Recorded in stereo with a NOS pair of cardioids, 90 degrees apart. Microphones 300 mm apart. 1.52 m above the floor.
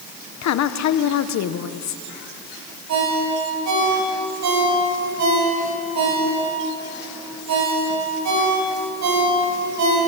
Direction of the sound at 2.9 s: 70° right.